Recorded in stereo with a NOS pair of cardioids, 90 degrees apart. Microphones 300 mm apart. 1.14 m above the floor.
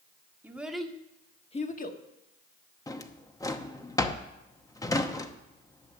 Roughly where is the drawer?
Ahead.